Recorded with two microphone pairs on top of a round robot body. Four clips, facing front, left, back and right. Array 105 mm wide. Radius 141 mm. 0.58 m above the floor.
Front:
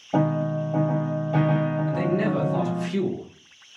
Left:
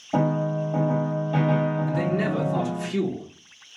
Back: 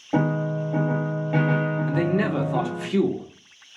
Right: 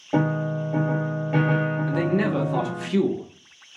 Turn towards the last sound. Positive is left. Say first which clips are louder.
# right 2 dB, back 2 dB
turn(degrees=-140)